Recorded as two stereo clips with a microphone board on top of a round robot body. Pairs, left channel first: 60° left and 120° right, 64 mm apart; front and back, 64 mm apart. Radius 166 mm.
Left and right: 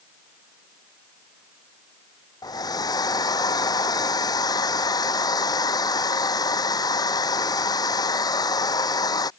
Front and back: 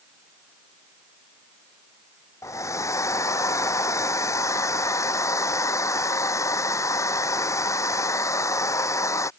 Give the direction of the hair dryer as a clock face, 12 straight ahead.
11 o'clock.